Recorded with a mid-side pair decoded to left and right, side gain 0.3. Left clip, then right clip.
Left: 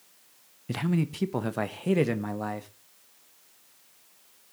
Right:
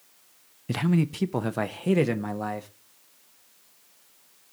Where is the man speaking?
35° right, 0.5 m; by 2.7 s 10° right, 1.5 m.